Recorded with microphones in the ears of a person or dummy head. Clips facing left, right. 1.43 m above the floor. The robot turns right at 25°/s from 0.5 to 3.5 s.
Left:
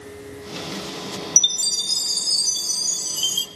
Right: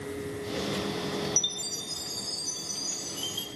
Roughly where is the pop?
I don't hear a pop.